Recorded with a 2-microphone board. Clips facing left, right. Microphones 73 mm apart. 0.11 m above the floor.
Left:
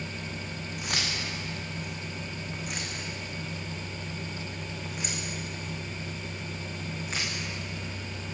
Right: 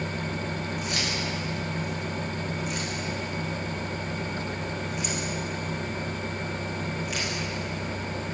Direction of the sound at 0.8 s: 65° left (ahead or behind).